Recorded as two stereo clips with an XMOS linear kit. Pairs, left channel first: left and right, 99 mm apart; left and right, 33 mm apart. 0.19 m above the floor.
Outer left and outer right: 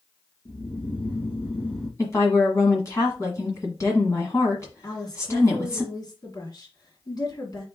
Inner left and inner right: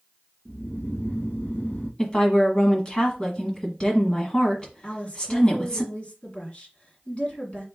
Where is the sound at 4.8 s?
40° left (ahead or behind), 2 m.